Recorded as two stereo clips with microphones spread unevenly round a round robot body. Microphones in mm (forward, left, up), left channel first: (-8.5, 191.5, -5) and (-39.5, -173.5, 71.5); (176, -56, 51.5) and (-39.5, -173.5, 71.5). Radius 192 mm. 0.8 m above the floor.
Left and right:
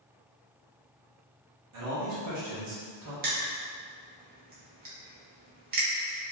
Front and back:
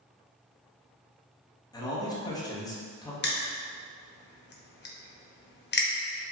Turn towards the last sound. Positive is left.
turn(degrees=-25)